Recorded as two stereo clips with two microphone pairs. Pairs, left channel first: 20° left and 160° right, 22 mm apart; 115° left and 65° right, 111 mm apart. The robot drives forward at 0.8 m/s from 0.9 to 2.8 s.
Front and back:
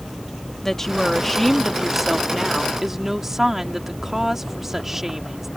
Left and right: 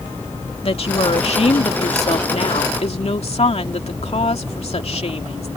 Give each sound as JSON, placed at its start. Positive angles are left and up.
{"t": 0.6, "sound": "a woman speaking", "azimuth_deg": 95}